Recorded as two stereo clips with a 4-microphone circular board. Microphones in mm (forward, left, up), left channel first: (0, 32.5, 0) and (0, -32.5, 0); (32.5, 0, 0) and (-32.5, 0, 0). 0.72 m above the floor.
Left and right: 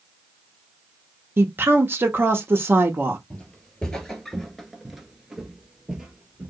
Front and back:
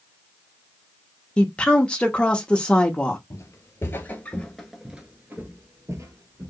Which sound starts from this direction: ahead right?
A woman speaking, at 1.4 s.